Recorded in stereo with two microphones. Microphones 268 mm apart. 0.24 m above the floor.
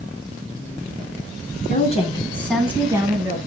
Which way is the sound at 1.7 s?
35° left (ahead or behind).